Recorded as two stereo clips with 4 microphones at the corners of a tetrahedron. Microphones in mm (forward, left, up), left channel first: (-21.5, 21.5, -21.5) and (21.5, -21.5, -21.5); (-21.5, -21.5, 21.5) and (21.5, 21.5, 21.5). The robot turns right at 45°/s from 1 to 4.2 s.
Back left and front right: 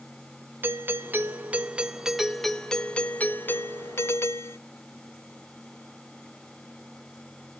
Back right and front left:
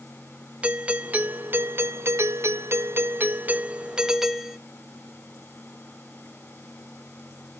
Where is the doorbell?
15° right, 0.8 m; by 4.6 s 125° left, 0.8 m.